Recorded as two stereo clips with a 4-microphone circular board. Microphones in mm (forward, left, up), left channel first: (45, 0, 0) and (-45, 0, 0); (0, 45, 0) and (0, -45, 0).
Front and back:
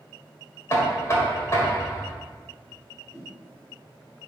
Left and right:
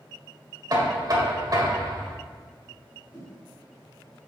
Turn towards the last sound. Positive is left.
turn(degrees=-75)